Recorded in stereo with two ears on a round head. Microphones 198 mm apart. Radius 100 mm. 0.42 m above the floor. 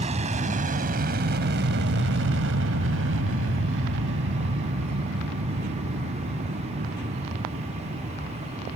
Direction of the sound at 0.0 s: 30° right (ahead or behind).